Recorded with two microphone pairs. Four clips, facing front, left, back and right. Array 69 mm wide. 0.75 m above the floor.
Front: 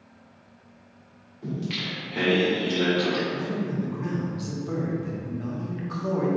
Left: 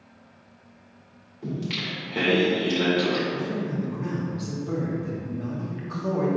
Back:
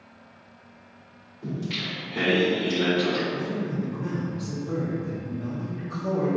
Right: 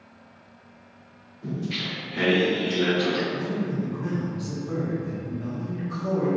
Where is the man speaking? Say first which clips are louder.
Even, even; 35° left, 1.2 m.